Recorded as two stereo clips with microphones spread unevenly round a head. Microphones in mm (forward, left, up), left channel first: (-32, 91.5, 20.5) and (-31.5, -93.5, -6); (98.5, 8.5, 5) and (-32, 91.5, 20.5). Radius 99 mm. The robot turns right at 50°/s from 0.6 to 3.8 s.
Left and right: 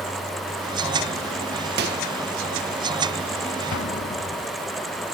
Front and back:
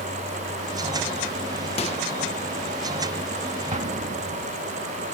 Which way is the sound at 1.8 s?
80° right.